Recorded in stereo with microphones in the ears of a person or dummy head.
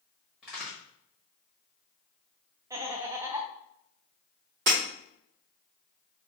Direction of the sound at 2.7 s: 20° right (ahead or behind).